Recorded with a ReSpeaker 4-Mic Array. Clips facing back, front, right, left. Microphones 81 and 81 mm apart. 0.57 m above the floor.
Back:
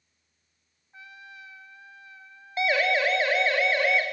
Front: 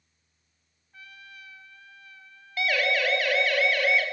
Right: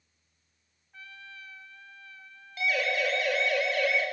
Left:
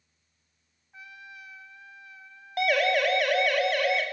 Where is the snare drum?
I don't hear a snare drum.